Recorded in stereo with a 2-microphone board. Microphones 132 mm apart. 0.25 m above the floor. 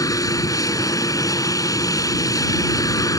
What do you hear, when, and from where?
0.0 s an aircraft: 25° left (ahead or behind)